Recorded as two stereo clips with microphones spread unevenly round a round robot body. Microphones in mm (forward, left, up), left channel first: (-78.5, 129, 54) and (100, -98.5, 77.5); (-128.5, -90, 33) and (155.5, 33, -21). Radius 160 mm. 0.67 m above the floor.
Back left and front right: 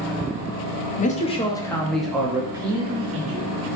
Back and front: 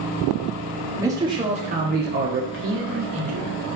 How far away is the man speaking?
About 1.4 m.